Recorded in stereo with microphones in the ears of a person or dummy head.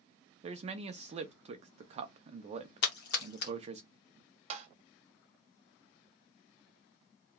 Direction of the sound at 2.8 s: 55° left (ahead or behind).